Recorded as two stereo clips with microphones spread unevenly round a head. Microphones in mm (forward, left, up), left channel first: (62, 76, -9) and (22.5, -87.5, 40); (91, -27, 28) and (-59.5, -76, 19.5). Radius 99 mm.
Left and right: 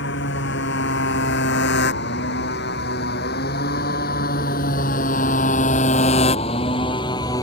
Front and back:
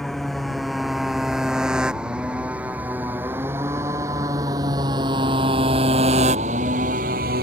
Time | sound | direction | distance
0.0 | a motorcycle | 105° left | ?